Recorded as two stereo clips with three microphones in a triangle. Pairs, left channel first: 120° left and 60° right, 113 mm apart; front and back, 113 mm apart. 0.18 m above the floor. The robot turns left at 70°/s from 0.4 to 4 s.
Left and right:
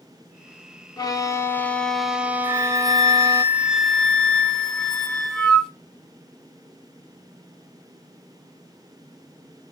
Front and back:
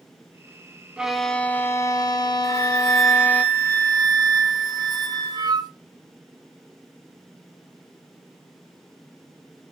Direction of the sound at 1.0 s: 105° left.